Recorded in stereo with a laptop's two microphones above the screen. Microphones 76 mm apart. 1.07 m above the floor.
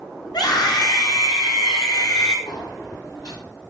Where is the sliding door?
85° left, 6 m.